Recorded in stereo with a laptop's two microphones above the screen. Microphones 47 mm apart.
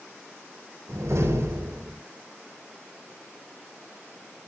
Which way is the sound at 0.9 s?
75° right (ahead or behind).